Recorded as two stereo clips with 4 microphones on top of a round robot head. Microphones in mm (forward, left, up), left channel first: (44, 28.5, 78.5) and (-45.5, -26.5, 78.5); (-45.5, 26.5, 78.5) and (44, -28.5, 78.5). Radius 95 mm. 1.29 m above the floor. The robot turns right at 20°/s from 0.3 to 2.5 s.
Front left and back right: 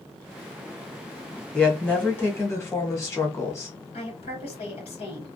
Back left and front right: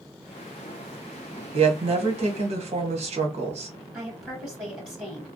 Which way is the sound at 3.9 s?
45° left.